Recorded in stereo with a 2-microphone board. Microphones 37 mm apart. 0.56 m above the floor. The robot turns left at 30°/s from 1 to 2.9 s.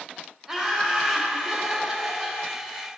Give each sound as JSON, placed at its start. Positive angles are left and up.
{"t": 0.5, "sound": "laughter", "side_deg": -15, "distance_m": 0.6}